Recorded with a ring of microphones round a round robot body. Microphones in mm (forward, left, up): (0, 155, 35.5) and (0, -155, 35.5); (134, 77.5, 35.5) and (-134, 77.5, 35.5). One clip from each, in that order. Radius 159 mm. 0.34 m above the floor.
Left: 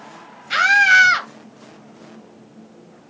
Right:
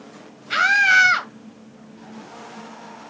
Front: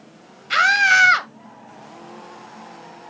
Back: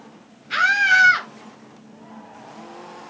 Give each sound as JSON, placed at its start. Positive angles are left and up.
{"t": 0.5, "sound": "a scream", "azimuth_deg": 5, "distance_m": 2.0}